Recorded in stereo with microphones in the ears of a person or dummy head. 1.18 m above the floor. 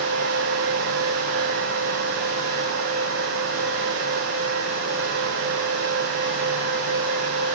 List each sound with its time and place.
Only background noise.